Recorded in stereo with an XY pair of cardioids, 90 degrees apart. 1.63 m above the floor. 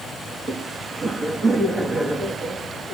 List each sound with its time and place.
0.3 s laughter: 40° right, 2.5 m